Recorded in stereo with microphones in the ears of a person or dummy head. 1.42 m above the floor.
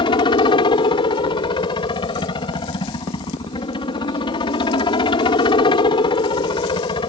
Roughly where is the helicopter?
Left.